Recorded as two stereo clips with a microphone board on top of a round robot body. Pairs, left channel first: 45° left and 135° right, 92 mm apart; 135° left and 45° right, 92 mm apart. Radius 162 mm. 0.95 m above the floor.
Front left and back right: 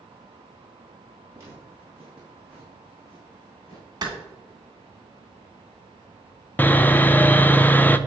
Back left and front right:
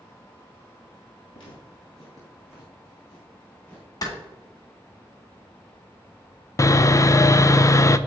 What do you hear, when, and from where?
1.3 s footsteps: 165° left, 1.7 m; by 3.9 s 50° left, 1.4 m
4.0 s a clap: straight behind, 2.0 m
6.6 s sawing: 105° left, 0.5 m